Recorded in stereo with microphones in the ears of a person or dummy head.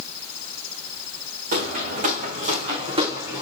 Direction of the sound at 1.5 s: 45° right (ahead or behind).